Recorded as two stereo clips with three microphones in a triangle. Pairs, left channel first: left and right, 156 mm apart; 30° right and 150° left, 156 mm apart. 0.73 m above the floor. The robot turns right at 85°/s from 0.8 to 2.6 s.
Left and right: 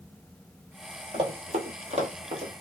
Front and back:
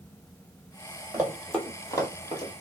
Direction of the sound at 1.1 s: 140° right.